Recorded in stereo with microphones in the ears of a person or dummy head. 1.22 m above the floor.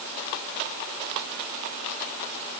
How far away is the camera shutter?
No camera shutter in this recording.